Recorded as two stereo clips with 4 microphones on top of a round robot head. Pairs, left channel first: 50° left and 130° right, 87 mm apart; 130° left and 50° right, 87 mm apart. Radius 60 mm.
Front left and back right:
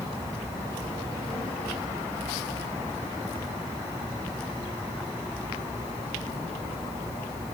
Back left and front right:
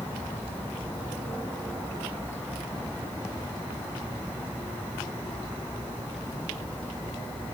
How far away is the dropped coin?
I don't hear a dropped coin.